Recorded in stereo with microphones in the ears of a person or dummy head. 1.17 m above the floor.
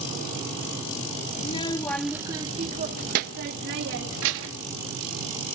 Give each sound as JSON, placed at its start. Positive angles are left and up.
{"t": 1.4, "sound": "a child speaking", "side_deg": 40, "distance_m": 0.8}